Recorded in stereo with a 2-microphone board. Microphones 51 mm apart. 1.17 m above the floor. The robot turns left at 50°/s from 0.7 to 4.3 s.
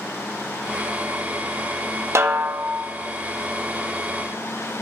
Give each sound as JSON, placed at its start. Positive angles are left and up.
{"t": 2.1, "sound": "a snare drum", "azimuth_deg": -105, "distance_m": 0.7}